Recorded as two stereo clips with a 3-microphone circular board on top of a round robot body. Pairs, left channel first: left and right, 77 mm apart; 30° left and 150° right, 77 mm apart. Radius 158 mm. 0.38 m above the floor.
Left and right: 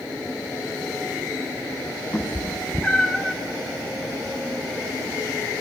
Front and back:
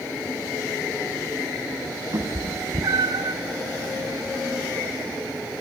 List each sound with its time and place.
2.1 s a cat meowing: 155° left, 1.3 m; by 3.4 s 175° right, 0.5 m